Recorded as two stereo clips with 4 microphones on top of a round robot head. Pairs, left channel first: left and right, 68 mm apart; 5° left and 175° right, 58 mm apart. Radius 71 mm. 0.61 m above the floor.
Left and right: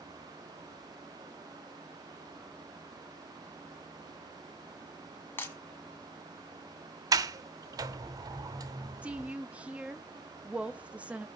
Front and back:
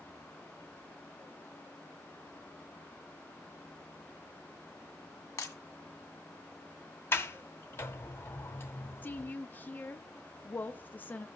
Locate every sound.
5.4 s breaking glass: 30° left, 2 m
7.1 s a sliding door: 55° right, 0.7 m
9.0 s a woman speaking: 30° right, 0.6 m